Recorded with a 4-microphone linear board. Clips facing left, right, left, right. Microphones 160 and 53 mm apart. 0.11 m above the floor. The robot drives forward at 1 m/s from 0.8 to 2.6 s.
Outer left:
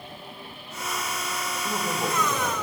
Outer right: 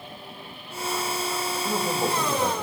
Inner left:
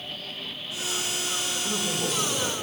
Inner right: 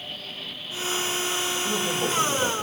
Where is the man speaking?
15° right (ahead or behind), 4.5 m.